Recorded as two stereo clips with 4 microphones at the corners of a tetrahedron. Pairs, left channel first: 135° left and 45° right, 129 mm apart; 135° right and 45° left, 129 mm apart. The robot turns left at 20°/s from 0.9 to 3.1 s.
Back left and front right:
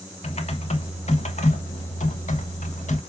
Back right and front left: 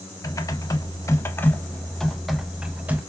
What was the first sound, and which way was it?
Typing on a keyboard, 160° left.